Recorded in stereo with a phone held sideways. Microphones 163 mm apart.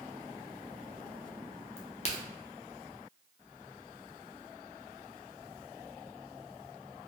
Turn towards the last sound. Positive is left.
turn(degrees=45)  # may be behind; listen again after turning